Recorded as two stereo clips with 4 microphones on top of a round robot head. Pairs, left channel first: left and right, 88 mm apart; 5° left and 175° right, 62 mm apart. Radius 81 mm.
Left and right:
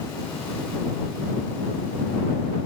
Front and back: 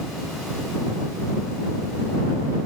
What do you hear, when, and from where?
Only background noise.